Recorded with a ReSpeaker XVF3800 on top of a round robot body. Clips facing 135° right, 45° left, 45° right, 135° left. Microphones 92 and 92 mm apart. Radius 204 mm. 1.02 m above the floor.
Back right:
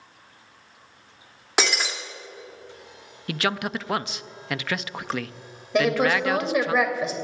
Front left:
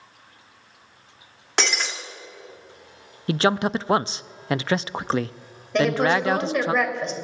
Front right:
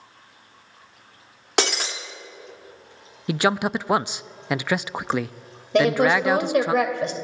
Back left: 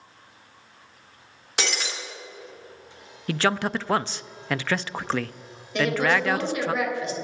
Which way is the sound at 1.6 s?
55° right.